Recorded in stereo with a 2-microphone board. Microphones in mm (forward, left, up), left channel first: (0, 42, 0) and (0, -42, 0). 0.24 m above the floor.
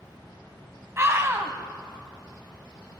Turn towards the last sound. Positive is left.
turn(degrees=-30)  # may be behind; listen again after turning